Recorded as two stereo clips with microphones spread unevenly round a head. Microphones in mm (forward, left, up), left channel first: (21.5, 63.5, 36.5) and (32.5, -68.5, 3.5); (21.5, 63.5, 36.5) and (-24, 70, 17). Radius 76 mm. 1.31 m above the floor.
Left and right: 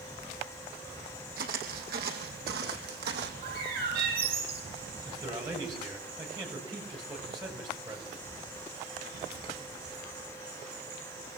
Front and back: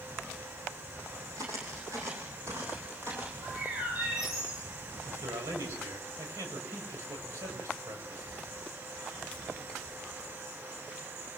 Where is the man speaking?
155° right, 7.5 m.